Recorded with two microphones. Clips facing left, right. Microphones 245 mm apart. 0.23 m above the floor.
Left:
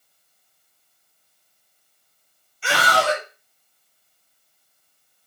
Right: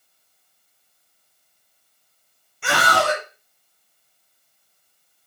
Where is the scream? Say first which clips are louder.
Even; 55° right (ahead or behind), 2.5 m.